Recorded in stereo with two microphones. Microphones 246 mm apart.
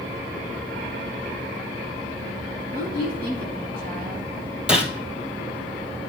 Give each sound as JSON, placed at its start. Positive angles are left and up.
{"t": 2.7, "sound": "a woman speaking", "side_deg": -35, "distance_m": 2.5}
{"t": 4.7, "sound": "a gunshot", "side_deg": -5, "distance_m": 1.2}